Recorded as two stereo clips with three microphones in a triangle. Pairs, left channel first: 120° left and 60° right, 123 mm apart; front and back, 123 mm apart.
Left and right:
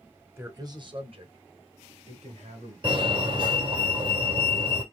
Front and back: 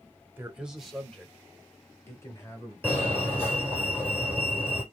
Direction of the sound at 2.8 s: 65° right.